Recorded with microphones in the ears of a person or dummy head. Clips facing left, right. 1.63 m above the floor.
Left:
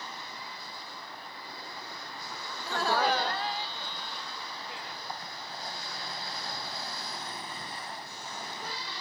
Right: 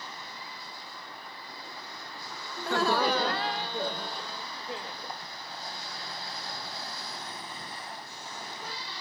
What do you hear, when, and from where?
2.6 s laughter: 35° right (ahead or behind); by 5.2 s 25° right (ahead or behind)